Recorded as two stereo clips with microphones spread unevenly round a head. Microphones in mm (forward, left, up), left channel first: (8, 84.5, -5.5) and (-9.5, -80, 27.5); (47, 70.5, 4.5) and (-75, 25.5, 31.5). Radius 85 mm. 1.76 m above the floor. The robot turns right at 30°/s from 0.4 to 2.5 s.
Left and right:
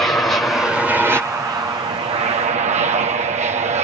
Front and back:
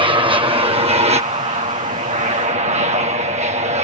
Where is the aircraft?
160° left; by 3.9 s 140° right.